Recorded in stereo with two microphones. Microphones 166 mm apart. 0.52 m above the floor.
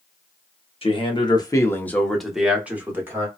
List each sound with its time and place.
0.8 s a man speaking: 35° left (ahead or behind), 0.8 m; by 3.3 s 15° right (ahead or behind), 1.2 m